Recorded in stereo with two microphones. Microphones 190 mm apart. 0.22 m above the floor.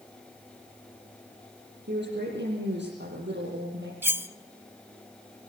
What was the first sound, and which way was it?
A woman speaking, 70° right (ahead or behind).